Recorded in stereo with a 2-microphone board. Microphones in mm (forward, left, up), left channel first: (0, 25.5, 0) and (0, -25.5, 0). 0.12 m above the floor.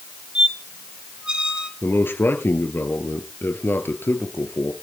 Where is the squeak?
20° right (ahead or behind), 1.4 m.